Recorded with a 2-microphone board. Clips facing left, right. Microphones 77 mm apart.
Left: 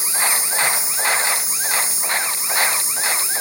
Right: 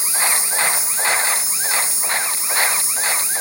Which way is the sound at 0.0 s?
20° left (ahead or behind).